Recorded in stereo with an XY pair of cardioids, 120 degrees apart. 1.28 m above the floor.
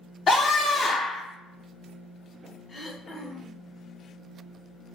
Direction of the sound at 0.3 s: 35° left.